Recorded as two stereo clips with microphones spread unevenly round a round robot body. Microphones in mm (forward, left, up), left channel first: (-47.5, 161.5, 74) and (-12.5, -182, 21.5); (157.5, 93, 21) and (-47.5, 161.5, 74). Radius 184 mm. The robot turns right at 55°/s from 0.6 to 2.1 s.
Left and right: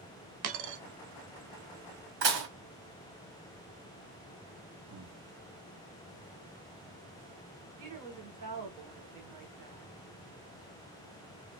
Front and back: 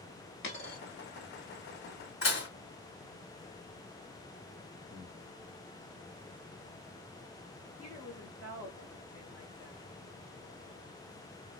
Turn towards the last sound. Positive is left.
turn(degrees=-95)